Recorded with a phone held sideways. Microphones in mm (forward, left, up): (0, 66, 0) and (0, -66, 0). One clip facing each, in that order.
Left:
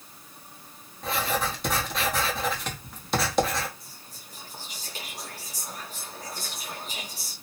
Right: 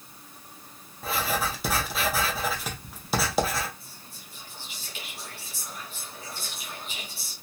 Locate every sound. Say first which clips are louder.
1.0 s writing: left 1 dB; 5° right (ahead or behind), 0.8 m
3.8 s whispering: even; 40° left (ahead or behind), 0.7 m